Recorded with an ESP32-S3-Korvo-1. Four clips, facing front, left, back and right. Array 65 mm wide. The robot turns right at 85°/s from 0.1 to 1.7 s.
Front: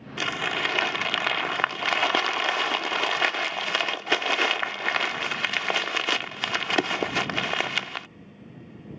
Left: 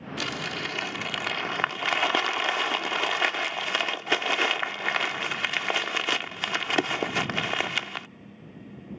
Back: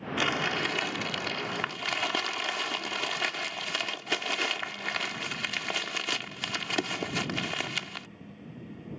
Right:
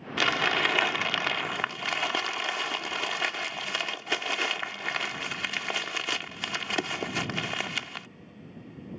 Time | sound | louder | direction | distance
0.2 | crumpling | right 7 dB, front 2 dB | 95° right | ?